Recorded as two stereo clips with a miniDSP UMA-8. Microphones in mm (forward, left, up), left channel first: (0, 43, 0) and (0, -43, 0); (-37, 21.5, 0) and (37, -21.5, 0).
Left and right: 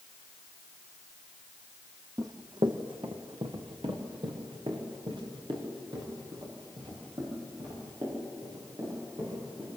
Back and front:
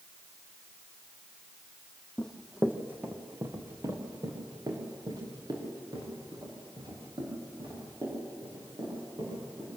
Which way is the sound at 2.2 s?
130° right.